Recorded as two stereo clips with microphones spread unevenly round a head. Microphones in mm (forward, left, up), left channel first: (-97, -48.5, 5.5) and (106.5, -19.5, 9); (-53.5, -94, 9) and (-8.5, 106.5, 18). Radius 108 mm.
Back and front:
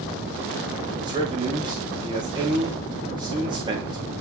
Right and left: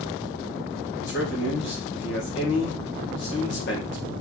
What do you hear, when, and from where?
1.0 s a man speaking: 60° right, 3.5 m